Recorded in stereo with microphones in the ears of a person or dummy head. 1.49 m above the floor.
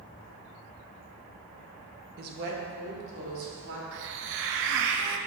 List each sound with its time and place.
2.2 s a woman speaking: 55° right (ahead or behind), 1.1 m; by 3.8 s 75° right (ahead or behind), 3 m
3.9 s a hiss: 70° right (ahead or behind), 0.6 m